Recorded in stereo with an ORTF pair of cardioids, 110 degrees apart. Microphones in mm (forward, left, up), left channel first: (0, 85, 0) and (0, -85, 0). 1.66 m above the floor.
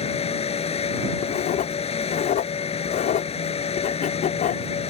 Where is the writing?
55° left.